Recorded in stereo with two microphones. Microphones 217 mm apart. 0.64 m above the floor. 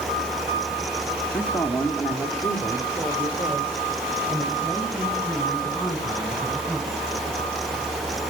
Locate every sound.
1.3 s a man speaking: 5° left (ahead or behind), 1.4 m; by 6.9 s centre (ahead or behind), 4 m